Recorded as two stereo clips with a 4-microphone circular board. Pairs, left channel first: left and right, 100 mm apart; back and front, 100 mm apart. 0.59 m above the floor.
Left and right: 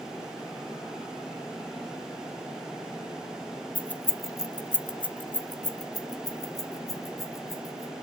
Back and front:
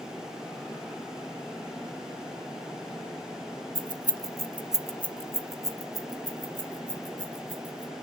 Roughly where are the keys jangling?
Ahead.